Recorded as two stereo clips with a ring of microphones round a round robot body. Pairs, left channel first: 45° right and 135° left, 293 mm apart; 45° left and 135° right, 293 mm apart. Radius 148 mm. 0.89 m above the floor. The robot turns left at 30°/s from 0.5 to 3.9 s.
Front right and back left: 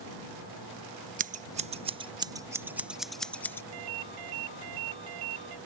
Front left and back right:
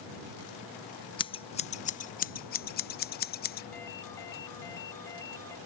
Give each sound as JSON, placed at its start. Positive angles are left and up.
{"t": 1.2, "sound": "scissors", "azimuth_deg": 105}
{"t": 3.7, "sound": "a ringtone", "azimuth_deg": 130}